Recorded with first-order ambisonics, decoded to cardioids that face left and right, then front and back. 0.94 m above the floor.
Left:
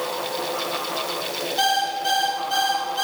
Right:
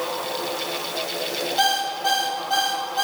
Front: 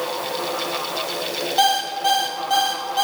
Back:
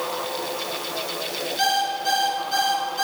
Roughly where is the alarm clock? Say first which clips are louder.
Even, front 4 dB; ahead.